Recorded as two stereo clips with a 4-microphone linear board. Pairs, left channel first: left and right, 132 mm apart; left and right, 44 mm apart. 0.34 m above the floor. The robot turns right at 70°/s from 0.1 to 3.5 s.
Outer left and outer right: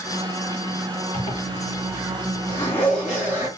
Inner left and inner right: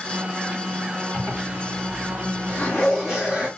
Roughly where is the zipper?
Left.